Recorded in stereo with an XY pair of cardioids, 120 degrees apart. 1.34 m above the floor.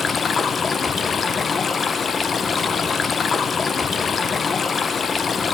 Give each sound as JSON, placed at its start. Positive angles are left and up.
{"t": 0.0, "sound": "running water", "azimuth_deg": 35, "distance_m": 0.8}